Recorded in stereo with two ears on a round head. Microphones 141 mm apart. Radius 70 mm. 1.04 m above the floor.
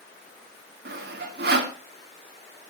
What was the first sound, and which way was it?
Sawing, 70° right (ahead or behind).